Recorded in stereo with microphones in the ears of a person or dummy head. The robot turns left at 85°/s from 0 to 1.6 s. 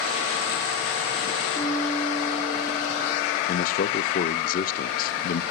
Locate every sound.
1.6 s a piano: 10° left (ahead or behind), 1.9 m; by 3.4 s 5° left (ahead or behind), 1.9 m
3.5 s a man speaking: 40° left (ahead or behind), 0.5 m